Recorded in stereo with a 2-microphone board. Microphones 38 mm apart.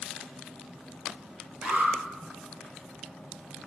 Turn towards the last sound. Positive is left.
turn(degrees=-35)  # may be behind; listen again after turning